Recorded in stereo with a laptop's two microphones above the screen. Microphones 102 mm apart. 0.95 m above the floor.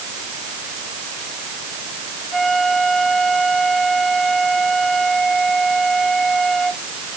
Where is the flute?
5° left (ahead or behind).